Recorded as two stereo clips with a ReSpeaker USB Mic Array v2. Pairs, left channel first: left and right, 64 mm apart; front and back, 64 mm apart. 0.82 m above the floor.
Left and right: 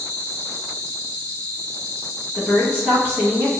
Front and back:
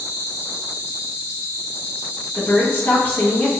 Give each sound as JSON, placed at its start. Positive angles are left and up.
{"t": 0.0, "sound": "an insect", "azimuth_deg": 145, "distance_m": 0.8}
{"t": 2.4, "sound": "a woman speaking", "azimuth_deg": -50, "distance_m": 1.1}